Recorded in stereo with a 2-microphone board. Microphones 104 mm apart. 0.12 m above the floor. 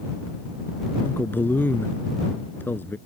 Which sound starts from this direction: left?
A man speaking, at 1.0 s.